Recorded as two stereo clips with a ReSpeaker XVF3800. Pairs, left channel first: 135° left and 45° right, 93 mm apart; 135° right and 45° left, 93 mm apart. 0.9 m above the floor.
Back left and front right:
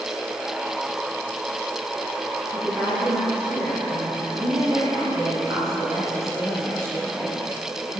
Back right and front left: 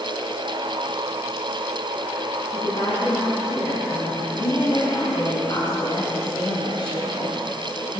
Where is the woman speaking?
120° right, 5.5 m; by 8.0 s 85° right, 5.5 m.